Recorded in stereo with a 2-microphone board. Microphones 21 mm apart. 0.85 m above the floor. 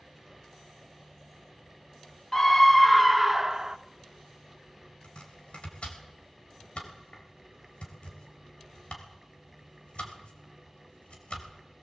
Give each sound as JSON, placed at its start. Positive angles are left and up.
{"t": 2.3, "sound": "a scream", "side_deg": 25, "distance_m": 1.0}
{"t": 5.0, "sound": "chopping", "side_deg": 80, "distance_m": 4.0}